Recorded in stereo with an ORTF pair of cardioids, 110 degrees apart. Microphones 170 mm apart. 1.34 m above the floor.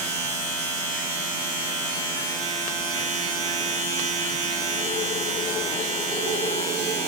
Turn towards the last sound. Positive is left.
turn(degrees=-60)